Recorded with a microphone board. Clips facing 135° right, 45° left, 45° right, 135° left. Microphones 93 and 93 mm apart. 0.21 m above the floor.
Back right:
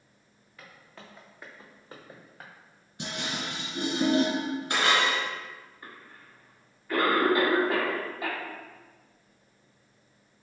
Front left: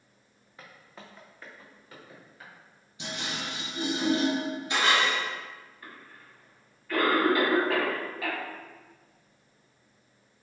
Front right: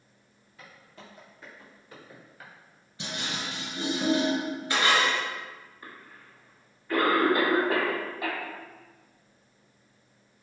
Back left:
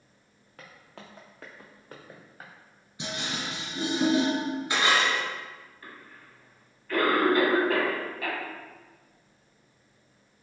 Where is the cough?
90° right, 1.2 m.